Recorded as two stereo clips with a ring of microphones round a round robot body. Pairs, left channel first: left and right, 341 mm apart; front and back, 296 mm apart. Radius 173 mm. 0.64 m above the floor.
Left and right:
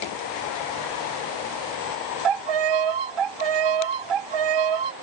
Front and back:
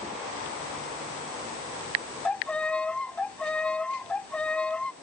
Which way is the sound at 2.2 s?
85° right.